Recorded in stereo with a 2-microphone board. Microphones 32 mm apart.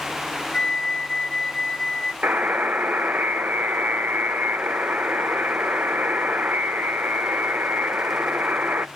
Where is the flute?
35° left (ahead or behind), 0.7 m.